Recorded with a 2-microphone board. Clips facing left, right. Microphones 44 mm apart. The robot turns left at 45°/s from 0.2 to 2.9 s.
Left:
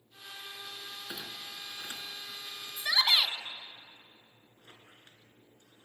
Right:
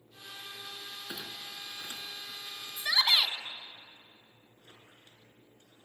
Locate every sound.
1.1 s a clunk: 5° right (ahead or behind), 1.5 m; by 2.4 s 50° left (ahead or behind), 1.5 m
2.8 s a shout: 5° right (ahead or behind), 1.9 m; by 3.4 s centre (ahead or behind), 1.9 m
4.6 s a squeak: 35° left (ahead or behind), 3 m